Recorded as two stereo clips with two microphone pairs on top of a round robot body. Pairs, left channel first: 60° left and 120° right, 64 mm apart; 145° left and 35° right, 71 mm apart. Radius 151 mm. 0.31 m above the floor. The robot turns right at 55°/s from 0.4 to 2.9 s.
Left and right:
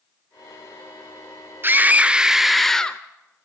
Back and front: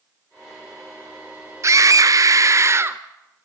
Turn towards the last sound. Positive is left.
turn(degrees=10)